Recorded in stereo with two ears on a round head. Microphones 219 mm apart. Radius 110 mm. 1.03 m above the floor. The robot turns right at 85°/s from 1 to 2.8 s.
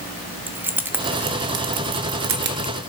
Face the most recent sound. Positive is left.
turn(degrees=-15)  # may be behind; listen again after turning